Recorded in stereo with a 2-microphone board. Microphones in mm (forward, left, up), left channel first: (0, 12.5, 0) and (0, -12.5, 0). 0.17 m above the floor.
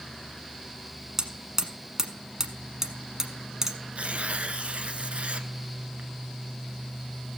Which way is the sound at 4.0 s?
60° right (ahead or behind).